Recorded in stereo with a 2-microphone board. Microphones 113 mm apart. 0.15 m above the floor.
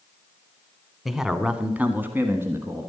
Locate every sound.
1.1 s a man speaking: centre (ahead or behind), 1.1 m; by 2.9 s 25° right (ahead or behind), 1.4 m